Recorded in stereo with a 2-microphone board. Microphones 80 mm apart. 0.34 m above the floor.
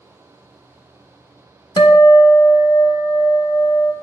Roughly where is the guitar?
Left.